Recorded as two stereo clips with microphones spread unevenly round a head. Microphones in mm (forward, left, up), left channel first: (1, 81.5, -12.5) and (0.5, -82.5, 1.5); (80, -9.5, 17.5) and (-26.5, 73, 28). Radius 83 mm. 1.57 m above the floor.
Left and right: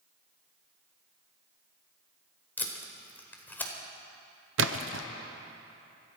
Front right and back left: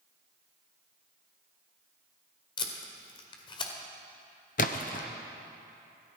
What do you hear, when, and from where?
2.6 s tape being pulled: 10° left, 1.7 m
4.6 s a splash: 85° right, 0.6 m